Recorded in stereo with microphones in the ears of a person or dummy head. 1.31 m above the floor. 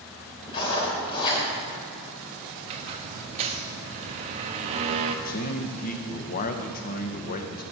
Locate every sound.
0.5 s writing: 30° left (ahead or behind), 3.5 m
2.6 s a squeak: 35° right (ahead or behind), 0.8 m
5.2 s a man speaking: 45° left (ahead or behind), 0.9 m